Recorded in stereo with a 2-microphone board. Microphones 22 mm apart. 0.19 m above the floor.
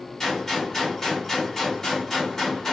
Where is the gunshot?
20° left (ahead or behind), 1.5 m.